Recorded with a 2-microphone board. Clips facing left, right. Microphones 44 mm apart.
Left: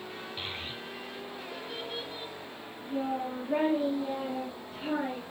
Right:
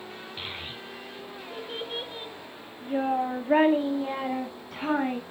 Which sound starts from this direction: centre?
A child speaking, at 0.4 s.